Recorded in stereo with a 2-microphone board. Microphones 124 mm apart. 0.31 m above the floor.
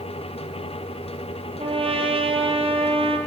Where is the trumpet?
50° right (ahead or behind), 2.5 m.